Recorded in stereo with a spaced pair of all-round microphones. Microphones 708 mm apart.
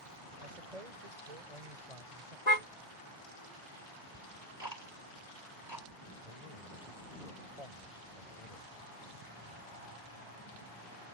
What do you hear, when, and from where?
0.4 s a man speaking: 60° right (ahead or behind); by 2.4 s 50° right (ahead or behind)
2.5 s a car horn: 65° left (ahead or behind)
4.1 s ticking: 35° right (ahead or behind)
6.2 s a man speaking: 55° left (ahead or behind)